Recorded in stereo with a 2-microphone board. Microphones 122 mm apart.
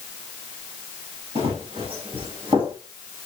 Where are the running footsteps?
50° right (ahead or behind), 6 m; by 2.7 s 45° right (ahead or behind), 5.5 m.